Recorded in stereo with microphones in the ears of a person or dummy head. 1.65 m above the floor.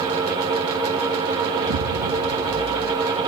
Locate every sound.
1.6 s an explosion: 50° right (ahead or behind), 0.5 m